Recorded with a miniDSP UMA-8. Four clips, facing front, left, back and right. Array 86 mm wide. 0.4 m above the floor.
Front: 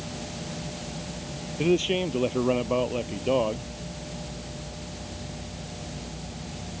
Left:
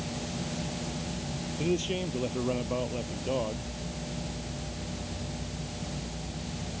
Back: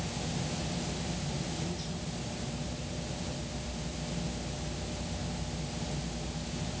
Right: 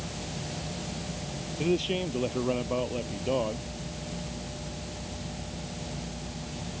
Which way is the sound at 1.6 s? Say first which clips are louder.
Right 2 dB, front 15 dB; 10° right.